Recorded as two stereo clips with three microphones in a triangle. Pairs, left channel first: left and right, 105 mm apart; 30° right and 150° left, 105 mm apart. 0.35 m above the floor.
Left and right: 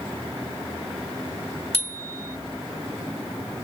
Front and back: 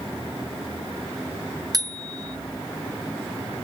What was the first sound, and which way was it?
A bicycle bell, 100° left.